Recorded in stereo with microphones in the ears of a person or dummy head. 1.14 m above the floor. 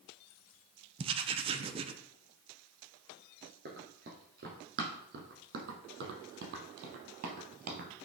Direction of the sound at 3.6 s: 50° right (ahead or behind).